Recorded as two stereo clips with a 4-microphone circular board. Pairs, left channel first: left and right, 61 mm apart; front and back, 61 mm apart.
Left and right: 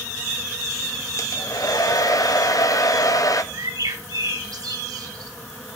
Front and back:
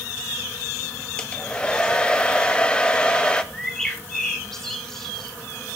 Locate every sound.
1.2 s a hair dryer: 75° left, 1.3 m
3.5 s a bird: 85° right, 2.5 m